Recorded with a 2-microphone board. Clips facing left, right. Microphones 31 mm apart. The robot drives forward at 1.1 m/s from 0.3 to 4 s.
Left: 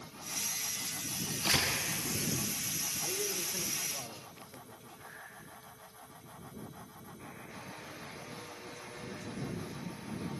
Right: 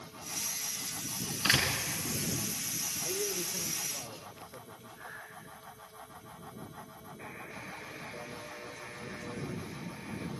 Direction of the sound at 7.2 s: 70° right (ahead or behind).